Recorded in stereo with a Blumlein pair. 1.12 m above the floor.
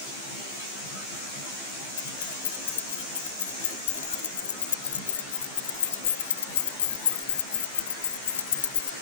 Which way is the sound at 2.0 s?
65° left.